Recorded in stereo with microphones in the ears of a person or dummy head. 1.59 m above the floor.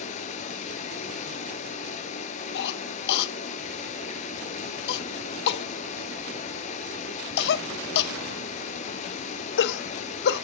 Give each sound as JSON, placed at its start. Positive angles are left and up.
{"t": 0.0, "sound": "running water", "side_deg": 35, "distance_m": 4.5}
{"t": 2.5, "sound": "a cough", "side_deg": 60, "distance_m": 1.4}